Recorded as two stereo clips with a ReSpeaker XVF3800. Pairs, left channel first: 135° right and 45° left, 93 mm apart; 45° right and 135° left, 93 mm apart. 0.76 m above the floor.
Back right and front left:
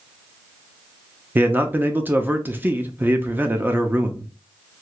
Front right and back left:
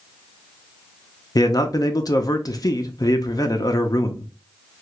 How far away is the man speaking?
About 0.5 m.